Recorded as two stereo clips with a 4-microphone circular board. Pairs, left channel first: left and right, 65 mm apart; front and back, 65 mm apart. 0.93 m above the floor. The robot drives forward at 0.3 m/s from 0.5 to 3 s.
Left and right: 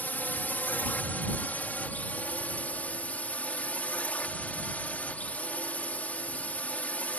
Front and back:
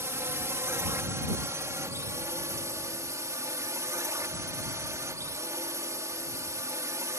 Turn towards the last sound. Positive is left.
turn(degrees=155)